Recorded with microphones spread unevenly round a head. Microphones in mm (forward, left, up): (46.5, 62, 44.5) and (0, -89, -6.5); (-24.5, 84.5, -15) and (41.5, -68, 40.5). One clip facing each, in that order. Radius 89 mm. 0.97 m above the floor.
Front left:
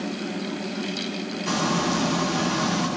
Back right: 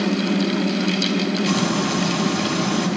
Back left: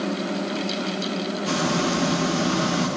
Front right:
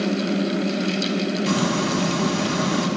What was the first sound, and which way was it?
Frying, 55° right.